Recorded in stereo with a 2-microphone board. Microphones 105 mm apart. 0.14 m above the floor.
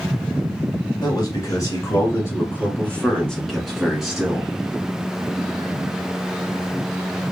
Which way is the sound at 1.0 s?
40° left (ahead or behind).